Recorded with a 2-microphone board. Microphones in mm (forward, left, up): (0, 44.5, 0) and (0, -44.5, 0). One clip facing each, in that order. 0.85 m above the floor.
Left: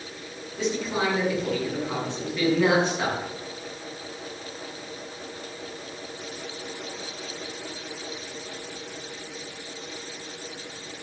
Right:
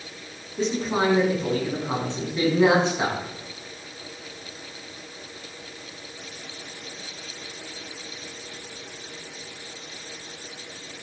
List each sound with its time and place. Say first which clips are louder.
0.6 s a man speaking: right 3 dB; 40° right (ahead or behind), 8.5 m; by 3.2 s 15° right (ahead or behind), 7.5 m